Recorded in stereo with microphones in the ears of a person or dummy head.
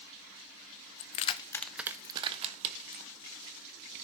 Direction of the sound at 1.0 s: 50° left (ahead or behind).